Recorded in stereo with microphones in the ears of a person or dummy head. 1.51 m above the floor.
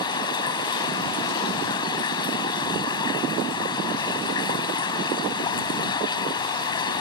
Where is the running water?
25° left (ahead or behind).